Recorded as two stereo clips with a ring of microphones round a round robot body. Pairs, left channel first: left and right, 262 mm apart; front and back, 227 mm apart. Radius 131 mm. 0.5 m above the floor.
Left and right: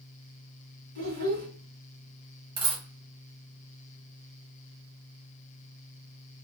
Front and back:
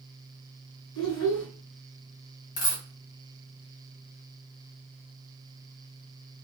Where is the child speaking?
45° right, 2.5 m.